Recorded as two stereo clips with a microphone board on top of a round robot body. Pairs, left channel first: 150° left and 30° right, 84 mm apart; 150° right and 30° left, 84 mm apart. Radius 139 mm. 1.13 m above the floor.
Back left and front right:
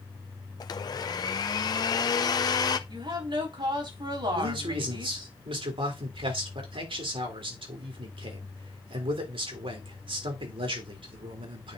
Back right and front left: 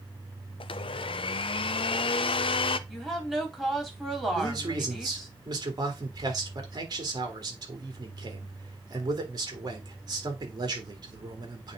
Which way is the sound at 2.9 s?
60° right.